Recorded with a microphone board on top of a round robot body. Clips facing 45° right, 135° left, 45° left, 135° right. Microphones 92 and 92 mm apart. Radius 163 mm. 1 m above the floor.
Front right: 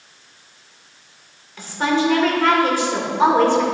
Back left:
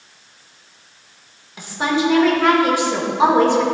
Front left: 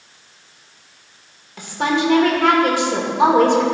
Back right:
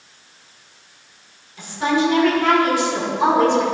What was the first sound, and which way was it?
A woman speaking, 60° left.